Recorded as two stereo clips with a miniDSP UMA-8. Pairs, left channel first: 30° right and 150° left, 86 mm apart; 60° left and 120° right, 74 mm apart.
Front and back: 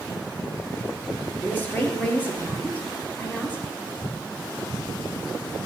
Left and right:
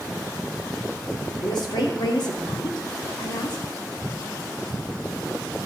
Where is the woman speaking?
40° left, 3 m.